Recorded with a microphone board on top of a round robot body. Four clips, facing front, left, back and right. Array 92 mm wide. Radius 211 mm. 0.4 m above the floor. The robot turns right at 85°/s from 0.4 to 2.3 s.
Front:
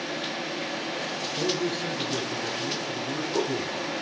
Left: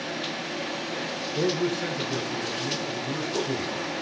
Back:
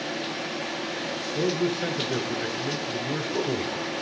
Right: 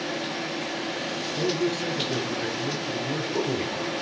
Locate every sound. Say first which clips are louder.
1.4 s a man speaking: left 1 dB, back 3 dB; 125° left, 3.5 m; by 3.7 s 150° right, 3.5 m